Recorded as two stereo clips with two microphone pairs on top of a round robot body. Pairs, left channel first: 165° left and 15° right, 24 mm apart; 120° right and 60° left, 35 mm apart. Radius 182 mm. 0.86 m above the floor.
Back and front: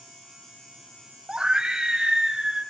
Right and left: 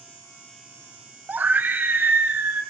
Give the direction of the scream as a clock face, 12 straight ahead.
11 o'clock.